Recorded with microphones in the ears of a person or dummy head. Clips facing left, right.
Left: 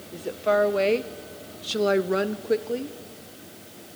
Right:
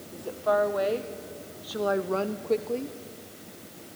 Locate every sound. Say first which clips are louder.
0.1 s a woman speaking: left 3 dB; 25° left (ahead or behind), 1.3 m; by 3.0 s 5° left (ahead or behind), 1.0 m